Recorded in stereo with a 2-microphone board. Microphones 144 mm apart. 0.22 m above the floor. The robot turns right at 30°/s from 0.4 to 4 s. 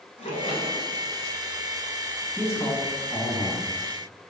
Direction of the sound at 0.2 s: 50° left (ahead or behind).